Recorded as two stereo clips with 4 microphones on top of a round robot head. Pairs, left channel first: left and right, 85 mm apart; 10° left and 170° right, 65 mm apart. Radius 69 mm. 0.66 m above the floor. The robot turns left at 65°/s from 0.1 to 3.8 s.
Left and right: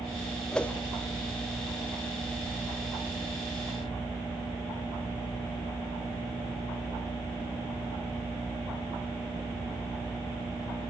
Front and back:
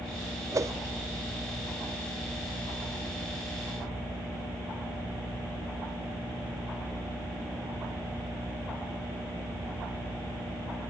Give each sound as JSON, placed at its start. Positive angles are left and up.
{"t": 0.5, "sound": "a whoosh", "azimuth_deg": 175, "distance_m": 1.3}